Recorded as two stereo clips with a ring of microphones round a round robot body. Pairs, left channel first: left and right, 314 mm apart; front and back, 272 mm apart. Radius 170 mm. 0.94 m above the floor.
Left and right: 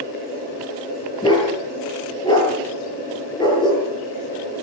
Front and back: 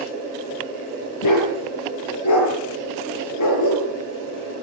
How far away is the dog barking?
About 7 m.